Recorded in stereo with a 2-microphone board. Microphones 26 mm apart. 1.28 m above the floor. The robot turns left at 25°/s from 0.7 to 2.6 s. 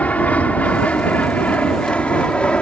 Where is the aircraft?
70° left (ahead or behind); by 2.6 s 45° left (ahead or behind).